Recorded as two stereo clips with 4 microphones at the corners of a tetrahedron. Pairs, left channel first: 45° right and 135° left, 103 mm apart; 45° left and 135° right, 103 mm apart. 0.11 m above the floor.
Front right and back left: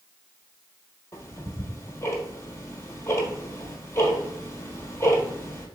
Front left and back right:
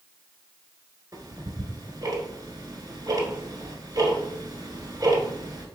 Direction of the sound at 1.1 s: 100° right.